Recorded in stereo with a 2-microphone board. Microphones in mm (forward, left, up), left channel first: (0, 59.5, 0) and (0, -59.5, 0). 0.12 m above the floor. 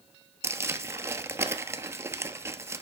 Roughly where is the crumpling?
Right.